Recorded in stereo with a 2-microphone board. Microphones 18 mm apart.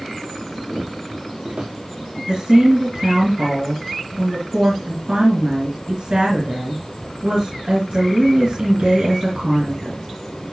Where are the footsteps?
70° right (ahead or behind), 6.5 m; by 2.2 s 65° right (ahead or behind), 8 m.